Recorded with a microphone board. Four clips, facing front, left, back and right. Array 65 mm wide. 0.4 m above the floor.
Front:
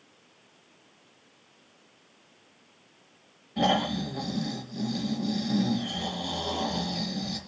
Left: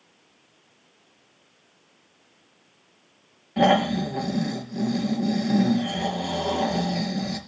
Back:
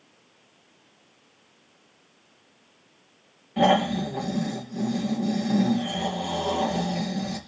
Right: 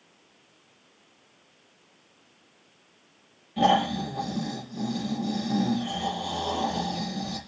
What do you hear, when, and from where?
3.6 s snoring: 105° left, 4 m